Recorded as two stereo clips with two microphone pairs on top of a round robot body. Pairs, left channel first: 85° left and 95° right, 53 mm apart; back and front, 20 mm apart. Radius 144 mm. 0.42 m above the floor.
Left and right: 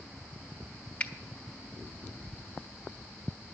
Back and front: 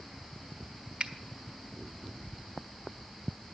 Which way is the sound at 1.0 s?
30° left.